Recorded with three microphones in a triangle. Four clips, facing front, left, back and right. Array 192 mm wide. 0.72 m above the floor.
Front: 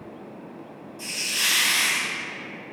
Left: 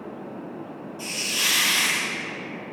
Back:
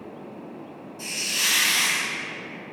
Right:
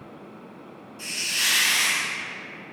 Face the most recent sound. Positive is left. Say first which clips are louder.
# even, even
turn(degrees=100)